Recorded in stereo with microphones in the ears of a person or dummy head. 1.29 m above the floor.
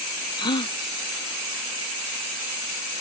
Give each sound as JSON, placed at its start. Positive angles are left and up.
{"t": 0.4, "sound": "a gasp", "side_deg": 30}